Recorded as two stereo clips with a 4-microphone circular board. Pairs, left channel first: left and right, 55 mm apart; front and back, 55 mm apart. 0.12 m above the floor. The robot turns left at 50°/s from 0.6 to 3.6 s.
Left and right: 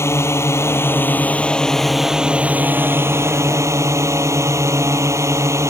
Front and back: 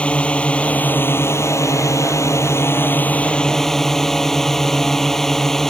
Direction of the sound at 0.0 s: 65° left.